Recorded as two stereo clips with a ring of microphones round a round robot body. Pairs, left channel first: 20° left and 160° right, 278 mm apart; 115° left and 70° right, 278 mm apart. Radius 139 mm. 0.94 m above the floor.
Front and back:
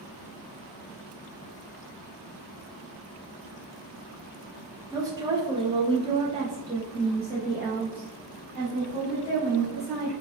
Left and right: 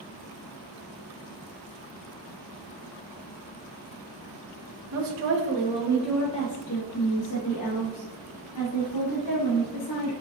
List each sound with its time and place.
4.9 s a woman speaking: 80° right, 0.8 m; by 10.1 s 115° left, 2.5 m